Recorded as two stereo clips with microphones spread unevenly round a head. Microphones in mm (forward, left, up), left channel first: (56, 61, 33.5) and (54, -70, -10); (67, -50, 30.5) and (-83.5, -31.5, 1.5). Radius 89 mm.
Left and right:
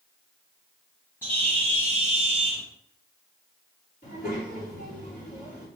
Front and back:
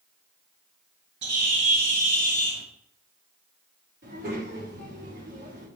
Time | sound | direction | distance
1.2 | a bird | 170° left | 1.7 m
4.0 | a child speaking | 135° left | 3 m